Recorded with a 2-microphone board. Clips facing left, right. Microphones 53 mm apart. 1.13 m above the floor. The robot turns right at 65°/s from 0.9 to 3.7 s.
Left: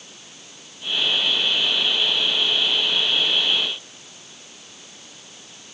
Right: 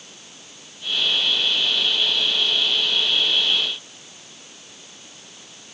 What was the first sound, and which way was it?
Only background noise.